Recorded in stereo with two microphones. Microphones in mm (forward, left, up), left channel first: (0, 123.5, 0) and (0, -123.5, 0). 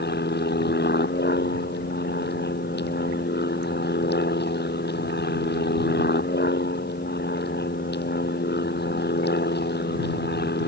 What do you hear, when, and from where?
0.0 s an aircraft: 45° left (ahead or behind)